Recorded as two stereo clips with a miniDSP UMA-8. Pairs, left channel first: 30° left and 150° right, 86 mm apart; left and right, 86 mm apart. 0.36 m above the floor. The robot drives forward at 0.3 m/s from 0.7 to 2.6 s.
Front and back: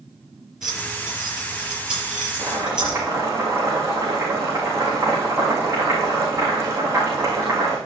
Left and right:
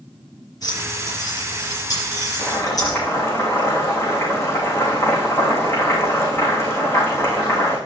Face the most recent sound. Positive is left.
turn(degrees=150)